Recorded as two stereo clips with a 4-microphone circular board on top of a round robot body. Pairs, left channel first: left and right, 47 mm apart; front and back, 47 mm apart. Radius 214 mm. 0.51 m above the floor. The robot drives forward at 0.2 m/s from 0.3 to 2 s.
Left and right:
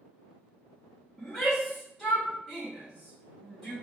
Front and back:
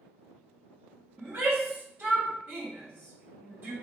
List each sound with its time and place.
1.2 s a shout: 175° right, 1.2 m